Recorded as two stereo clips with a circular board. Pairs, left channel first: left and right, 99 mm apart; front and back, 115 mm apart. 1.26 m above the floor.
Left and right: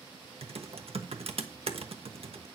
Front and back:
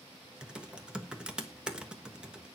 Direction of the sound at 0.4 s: 95° right.